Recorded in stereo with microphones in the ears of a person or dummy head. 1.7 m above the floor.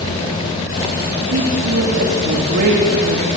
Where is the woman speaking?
70° right (ahead or behind), 3.5 m; by 3.3 s 50° right (ahead or behind), 3 m.